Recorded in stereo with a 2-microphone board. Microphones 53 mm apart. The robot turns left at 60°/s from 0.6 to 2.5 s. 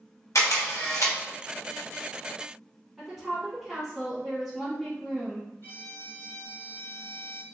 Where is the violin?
45° left (ahead or behind), 1.3 m.